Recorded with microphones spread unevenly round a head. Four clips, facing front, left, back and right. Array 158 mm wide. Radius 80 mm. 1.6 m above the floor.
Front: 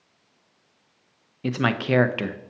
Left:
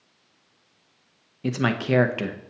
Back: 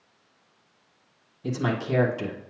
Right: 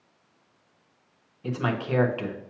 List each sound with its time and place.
1.4 s a man speaking: 40° left, 0.7 m